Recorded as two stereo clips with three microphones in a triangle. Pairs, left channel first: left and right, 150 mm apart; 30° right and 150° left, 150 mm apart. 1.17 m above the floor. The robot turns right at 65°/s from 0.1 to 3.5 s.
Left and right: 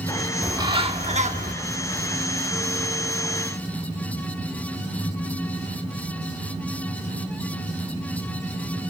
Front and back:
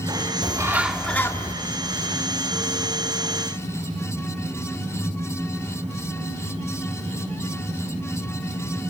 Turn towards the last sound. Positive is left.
turn(degrees=45)